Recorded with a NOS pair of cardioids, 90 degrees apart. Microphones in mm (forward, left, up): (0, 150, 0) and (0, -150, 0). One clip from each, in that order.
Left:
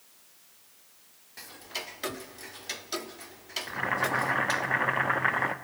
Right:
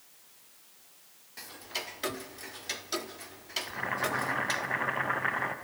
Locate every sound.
1.4 s ticking: straight ahead, 0.8 m
3.7 s boiling: 20° left, 0.9 m